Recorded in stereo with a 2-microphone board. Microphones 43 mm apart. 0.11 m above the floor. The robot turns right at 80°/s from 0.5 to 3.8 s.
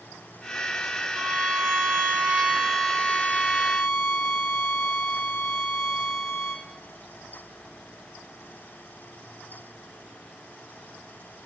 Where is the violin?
130° right, 3 m; by 6.7 s 85° left, 3 m.